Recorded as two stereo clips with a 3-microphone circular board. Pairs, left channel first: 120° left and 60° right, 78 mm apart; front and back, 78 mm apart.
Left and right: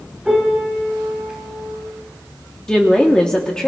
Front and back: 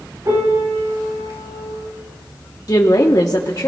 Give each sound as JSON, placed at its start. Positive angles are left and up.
{"t": 0.2, "sound": "a piano", "azimuth_deg": -140, "distance_m": 3.5}
{"t": 2.7, "sound": "a woman speaking", "azimuth_deg": 40, "distance_m": 1.0}